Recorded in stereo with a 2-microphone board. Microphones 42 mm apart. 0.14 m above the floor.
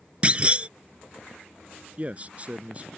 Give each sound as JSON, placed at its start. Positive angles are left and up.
{"t": 0.2, "sound": "a clunk", "side_deg": -30}
{"t": 2.0, "sound": "a man speaking", "side_deg": -35}